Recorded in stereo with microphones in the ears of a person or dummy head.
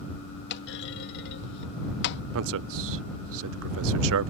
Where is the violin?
I don't hear a violin.